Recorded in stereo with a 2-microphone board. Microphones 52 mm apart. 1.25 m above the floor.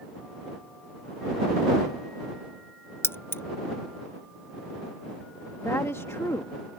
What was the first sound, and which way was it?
Keys jangling, 45° left (ahead or behind).